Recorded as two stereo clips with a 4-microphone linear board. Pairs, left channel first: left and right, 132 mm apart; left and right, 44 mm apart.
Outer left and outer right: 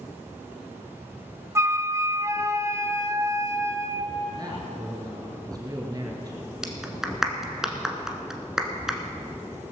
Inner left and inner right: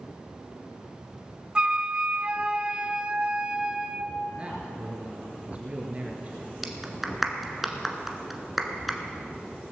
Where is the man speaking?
30° right (ahead or behind), 2.5 m.